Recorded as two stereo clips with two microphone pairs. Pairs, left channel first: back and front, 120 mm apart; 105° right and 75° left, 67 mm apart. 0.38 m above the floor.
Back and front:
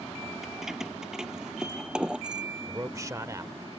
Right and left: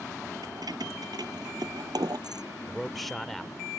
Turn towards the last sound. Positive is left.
turn(degrees=-20)